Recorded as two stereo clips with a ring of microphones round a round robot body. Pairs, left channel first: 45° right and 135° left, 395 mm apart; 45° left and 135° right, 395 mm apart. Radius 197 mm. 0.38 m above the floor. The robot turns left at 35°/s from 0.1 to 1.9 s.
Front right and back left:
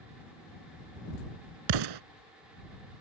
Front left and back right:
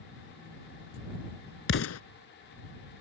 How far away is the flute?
I don't hear a flute.